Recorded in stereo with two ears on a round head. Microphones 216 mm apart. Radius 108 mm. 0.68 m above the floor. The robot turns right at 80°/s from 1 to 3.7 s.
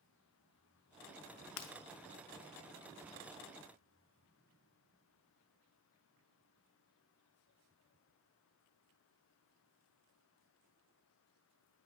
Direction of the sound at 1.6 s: 55° left (ahead or behind).